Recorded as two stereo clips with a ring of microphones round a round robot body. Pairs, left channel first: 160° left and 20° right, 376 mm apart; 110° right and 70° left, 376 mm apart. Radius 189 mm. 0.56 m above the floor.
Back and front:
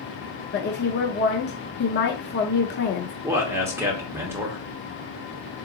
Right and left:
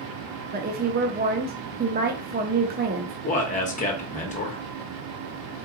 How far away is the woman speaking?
About 0.7 m.